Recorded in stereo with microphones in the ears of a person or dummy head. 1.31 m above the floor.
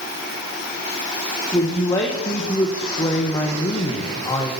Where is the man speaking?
20° left (ahead or behind), 1.6 m.